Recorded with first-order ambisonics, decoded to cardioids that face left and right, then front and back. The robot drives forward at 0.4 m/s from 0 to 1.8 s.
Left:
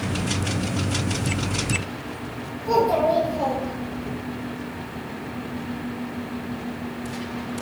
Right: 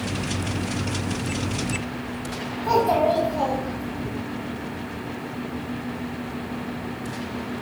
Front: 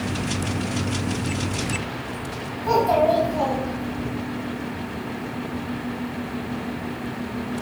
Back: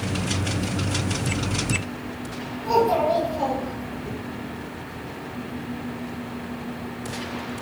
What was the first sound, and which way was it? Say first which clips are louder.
A child speaking: even, front 2 dB; 65° right.